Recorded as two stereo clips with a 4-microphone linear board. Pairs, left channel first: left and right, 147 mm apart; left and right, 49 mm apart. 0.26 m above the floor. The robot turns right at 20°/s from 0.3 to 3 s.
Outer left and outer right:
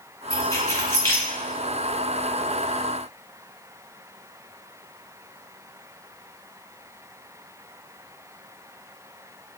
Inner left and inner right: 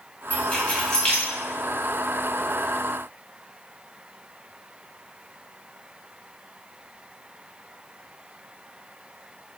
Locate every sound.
0.3 s keys jangling: 25° left (ahead or behind), 0.9 m; by 1.3 s 15° left (ahead or behind), 0.9 m